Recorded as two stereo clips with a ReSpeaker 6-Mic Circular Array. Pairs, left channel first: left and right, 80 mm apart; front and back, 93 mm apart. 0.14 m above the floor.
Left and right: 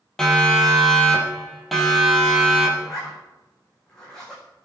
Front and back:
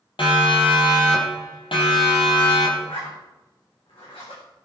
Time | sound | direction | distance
0.2 | a siren | 10° left | 5.5 m
2.8 | a zipper | 10° left | 7.5 m